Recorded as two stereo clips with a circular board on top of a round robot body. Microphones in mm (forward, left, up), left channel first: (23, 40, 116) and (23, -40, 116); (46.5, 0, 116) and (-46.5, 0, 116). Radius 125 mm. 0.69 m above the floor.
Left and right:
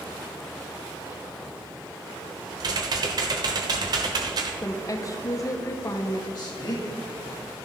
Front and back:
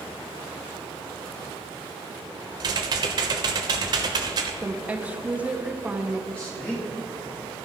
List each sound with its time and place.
2.6 s typing on a keyboard: 135° right, 1.0 m
4.6 s a woman speaking: 110° left, 1.2 m
6.3 s a man speaking: 75° left, 1.7 m